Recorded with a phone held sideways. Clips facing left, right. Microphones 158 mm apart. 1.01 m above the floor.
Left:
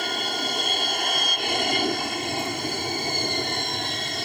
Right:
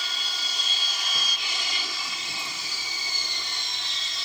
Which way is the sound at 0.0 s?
55° left (ahead or behind).